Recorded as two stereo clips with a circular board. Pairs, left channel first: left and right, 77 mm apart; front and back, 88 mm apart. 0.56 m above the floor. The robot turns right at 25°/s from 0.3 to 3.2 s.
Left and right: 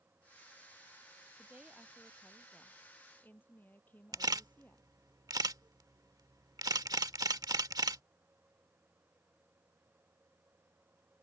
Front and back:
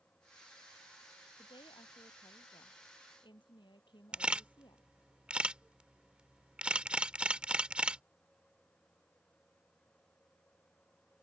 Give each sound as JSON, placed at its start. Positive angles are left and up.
{"t": 1.4, "sound": "a woman speaking", "azimuth_deg": -20}
{"t": 4.1, "sound": "a camera shutter", "azimuth_deg": -105}